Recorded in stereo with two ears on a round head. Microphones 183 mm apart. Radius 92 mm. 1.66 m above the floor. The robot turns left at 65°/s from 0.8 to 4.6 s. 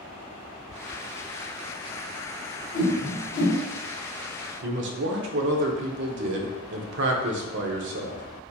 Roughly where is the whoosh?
Left.